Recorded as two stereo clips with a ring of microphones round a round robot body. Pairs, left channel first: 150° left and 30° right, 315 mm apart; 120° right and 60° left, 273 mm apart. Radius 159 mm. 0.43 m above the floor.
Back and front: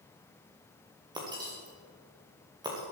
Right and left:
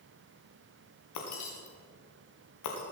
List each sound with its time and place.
1.1 s breaking glass: 105° right, 4.5 m